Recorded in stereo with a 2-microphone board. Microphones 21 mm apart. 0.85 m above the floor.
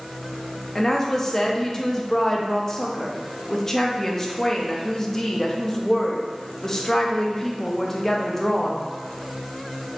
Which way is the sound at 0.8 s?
20° left (ahead or behind).